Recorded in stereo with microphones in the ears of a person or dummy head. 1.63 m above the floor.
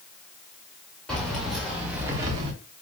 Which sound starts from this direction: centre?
Keys jangling, at 1.1 s.